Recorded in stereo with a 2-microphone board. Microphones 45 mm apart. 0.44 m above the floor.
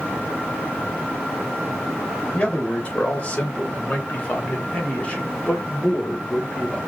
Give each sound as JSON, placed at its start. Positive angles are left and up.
{"t": 2.3, "sound": "a man speaking", "side_deg": 25, "distance_m": 2.0}